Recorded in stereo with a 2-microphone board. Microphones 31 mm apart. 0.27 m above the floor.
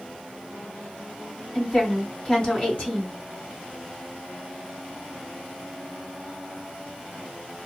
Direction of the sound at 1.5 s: 40° left (ahead or behind).